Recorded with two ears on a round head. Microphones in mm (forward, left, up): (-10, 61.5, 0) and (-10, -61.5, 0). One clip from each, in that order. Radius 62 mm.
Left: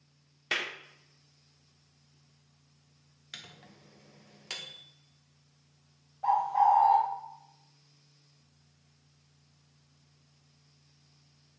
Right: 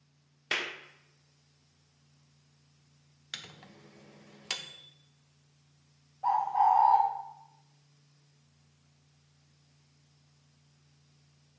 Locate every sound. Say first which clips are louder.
0.5 s a clap: even; centre (ahead or behind), 0.6 m
3.3 s a microwave: right 3 dB; 25° right (ahead or behind), 0.6 m
6.2 s a bird: left 1 dB; 35° left (ahead or behind), 2 m